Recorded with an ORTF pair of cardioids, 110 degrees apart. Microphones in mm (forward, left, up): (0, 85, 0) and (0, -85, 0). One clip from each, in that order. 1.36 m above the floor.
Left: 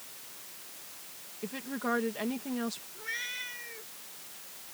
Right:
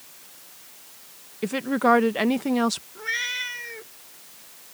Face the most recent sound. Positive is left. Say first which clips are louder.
# right 7 dB
turn(degrees=-55)